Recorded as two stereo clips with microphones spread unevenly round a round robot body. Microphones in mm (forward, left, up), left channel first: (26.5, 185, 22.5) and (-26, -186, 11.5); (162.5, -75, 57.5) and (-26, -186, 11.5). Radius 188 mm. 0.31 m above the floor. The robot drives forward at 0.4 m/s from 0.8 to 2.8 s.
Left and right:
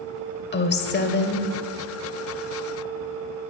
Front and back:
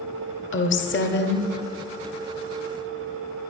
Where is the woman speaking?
30° left, 1.1 m; by 1.5 s 45° left, 1.0 m.